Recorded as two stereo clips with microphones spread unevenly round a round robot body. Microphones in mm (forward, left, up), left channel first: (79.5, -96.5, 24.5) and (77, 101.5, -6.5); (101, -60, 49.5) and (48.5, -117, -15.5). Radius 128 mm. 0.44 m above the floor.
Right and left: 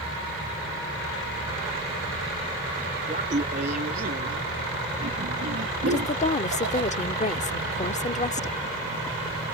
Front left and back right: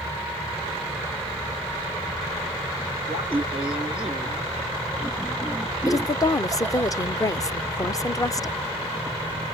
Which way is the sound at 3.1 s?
155° left.